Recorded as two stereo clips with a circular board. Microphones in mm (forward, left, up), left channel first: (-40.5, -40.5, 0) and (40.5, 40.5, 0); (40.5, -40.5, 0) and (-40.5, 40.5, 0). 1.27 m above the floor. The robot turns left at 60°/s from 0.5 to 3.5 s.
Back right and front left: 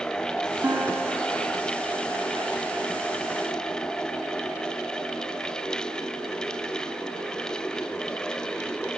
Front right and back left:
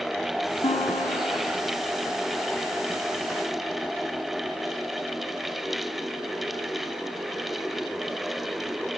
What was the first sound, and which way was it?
A guitar, 20° right.